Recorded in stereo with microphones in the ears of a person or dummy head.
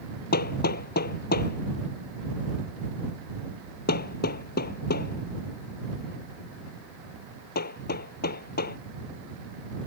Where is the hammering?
55° left (ahead or behind).